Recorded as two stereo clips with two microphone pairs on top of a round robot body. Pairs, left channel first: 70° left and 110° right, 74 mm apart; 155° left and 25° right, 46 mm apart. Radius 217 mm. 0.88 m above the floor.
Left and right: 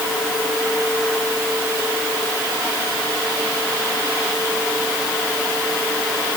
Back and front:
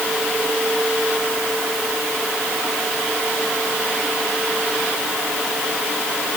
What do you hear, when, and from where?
Only background noise.